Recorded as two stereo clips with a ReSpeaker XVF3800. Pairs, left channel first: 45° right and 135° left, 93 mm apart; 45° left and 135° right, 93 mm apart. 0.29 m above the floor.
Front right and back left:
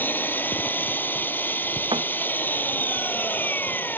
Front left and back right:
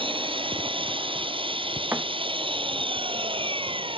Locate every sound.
0.0 s an engine running: 115° right
1.9 s a thud: 160° left